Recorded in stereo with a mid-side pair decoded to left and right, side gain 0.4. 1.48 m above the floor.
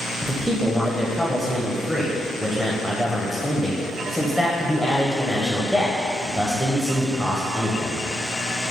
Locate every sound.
0.2 s a man speaking: 10° right, 0.7 m